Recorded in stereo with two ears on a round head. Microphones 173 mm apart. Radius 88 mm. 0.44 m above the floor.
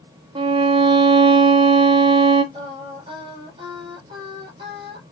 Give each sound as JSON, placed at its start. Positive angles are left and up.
{"t": 0.3, "sound": "a violin", "side_deg": -25, "distance_m": 0.6}
{"t": 2.5, "sound": "singing", "side_deg": -30, "distance_m": 3.5}